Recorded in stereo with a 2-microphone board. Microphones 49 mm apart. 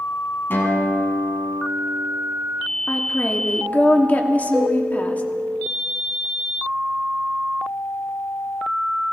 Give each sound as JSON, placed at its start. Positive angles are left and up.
{"t": 0.5, "sound": "a guitar", "side_deg": 45, "distance_m": 3.0}
{"t": 2.9, "sound": "a woman speaking", "side_deg": 30, "distance_m": 1.4}
{"t": 4.5, "sound": "a cowbell", "side_deg": 15, "distance_m": 8.0}